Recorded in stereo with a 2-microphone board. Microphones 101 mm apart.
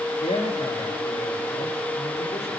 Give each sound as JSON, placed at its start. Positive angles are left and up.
{"t": 0.2, "sound": "a man speaking", "side_deg": 85, "distance_m": 3.0}